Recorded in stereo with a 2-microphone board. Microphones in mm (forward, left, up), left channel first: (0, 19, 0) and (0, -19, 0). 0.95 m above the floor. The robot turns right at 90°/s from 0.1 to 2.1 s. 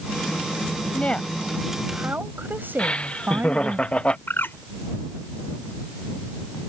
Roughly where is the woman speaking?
Behind left.